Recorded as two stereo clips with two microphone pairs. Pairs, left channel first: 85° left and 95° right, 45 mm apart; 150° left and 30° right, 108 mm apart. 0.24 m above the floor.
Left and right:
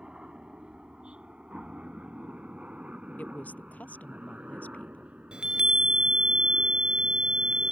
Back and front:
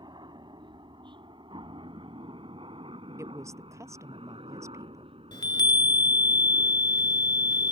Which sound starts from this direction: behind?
A chime, at 5.3 s.